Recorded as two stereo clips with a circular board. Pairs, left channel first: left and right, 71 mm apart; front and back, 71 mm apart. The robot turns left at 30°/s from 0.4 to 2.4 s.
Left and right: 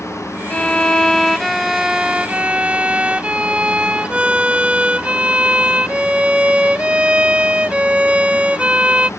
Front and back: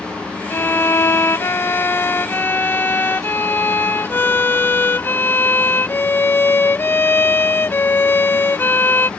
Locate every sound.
0.5 s a violin: 25° left; by 9.1 s 30° right